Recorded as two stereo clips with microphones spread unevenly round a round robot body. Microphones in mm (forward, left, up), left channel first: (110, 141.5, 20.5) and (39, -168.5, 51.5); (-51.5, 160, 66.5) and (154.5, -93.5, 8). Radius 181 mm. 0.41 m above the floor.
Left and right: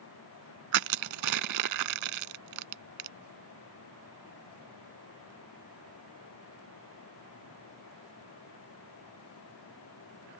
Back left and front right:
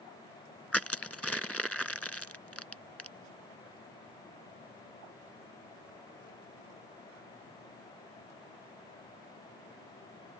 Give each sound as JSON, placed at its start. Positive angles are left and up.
{"t": 0.7, "sound": "crushing", "azimuth_deg": -145}